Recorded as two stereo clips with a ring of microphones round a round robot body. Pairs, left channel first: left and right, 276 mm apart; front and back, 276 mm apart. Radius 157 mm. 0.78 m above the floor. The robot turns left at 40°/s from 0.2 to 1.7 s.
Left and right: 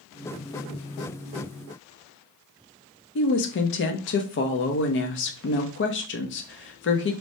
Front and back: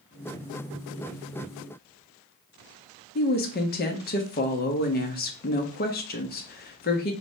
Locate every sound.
3.1 s a woman speaking: 50° left, 0.6 m